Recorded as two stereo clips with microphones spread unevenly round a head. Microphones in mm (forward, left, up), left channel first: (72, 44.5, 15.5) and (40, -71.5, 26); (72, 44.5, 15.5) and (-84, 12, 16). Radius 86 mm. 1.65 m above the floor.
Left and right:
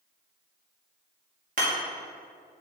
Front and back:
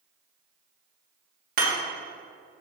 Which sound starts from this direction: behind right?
Hammering, at 1.6 s.